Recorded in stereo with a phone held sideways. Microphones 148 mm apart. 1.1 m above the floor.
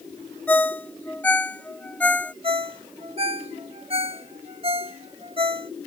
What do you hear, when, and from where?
0.5 s a ringtone: 10° left (ahead or behind)
2.4 s a ringtone: 40° right (ahead or behind)